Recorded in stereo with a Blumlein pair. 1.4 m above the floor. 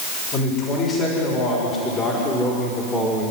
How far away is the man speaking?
About 6.5 m.